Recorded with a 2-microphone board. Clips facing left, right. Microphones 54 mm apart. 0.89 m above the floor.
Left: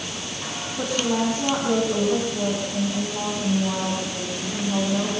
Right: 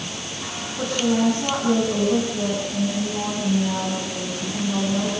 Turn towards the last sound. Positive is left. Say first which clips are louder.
# right 3 dB
turn(degrees=10)  # may be behind; listen again after turning